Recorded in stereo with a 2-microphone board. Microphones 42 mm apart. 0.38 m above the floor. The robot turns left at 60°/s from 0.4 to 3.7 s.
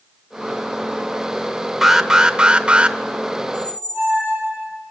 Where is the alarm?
5° right (ahead or behind), 1.3 m; by 3.0 s 25° right (ahead or behind), 1.3 m.